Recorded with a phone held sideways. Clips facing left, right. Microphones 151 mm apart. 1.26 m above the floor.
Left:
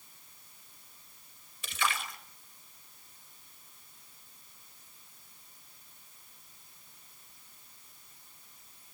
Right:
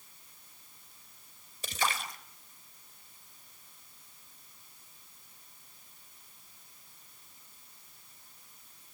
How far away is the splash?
About 1.2 m.